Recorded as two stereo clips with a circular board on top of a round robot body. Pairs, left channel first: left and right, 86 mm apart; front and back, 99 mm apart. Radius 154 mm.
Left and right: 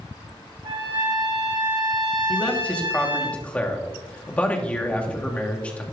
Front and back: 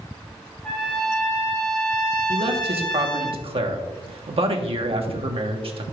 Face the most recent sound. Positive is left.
turn(degrees=165)